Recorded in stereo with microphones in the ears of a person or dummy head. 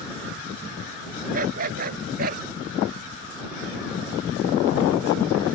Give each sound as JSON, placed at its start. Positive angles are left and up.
{"t": 1.3, "sound": "a dog barking", "side_deg": -50}